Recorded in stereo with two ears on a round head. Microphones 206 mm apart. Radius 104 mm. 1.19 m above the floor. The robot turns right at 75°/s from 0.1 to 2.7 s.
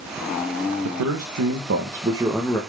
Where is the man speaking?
115° right, 1.3 m; by 2.6 s 15° left, 1.3 m.